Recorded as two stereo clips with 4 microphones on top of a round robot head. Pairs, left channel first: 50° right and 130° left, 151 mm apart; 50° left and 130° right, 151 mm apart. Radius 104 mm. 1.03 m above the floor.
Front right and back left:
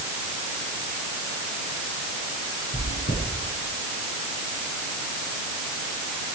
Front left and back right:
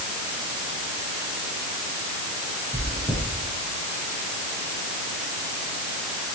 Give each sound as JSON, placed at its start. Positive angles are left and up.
{"t": 2.7, "sound": "chewing", "azimuth_deg": -20, "distance_m": 9.5}